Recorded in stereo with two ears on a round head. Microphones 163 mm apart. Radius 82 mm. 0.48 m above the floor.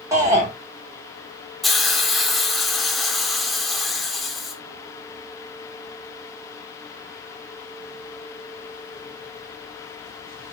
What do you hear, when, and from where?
0.1 s a shout: 15° right (ahead or behind), 1.5 m
1.6 s a hiss: centre (ahead or behind), 1.2 m